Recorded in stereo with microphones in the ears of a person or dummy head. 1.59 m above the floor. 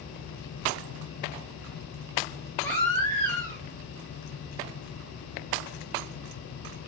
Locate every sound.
2.6 s a baby crying: 5° left (ahead or behind), 5 m